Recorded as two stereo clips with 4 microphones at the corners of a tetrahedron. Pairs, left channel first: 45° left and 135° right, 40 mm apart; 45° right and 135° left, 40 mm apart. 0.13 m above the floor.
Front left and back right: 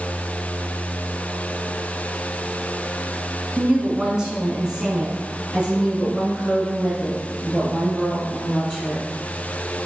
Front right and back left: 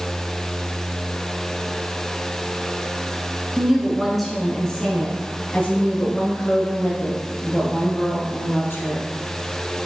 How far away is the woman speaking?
About 1.1 m.